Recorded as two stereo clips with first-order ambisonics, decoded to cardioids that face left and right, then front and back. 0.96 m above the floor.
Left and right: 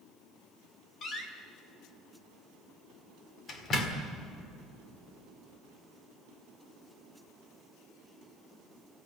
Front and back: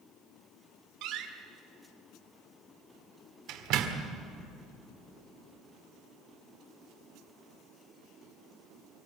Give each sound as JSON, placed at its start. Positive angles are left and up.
{"t": 1.0, "sound": "a door slam", "azimuth_deg": 150, "distance_m": 1.8}